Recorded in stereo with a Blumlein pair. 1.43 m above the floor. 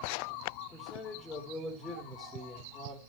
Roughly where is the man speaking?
Ahead.